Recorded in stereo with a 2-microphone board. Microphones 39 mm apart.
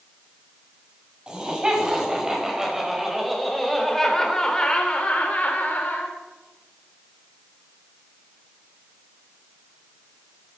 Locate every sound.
1.3 s laughter: 25° right (ahead or behind), 6 m; by 6.1 s 60° left (ahead or behind), 3.5 m